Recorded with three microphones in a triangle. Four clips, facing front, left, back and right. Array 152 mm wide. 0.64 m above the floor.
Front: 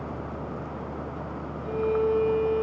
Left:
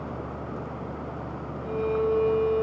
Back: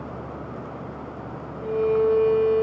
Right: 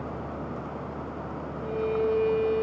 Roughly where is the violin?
Behind right.